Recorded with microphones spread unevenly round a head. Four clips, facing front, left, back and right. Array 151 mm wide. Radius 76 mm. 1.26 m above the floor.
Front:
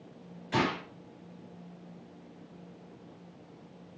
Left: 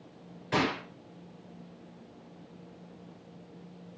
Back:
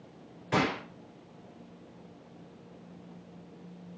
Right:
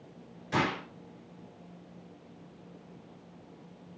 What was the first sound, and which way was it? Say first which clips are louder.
A gunshot: left 1 dB, back 1 dB; 155° left.